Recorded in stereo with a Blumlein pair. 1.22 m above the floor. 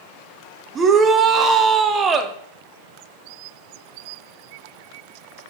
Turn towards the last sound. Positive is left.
turn(degrees=-20)